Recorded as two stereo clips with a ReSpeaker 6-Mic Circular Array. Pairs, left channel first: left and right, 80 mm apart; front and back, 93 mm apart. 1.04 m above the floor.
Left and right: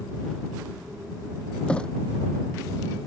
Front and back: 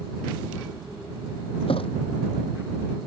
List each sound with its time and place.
1.7 s a thud: 10° left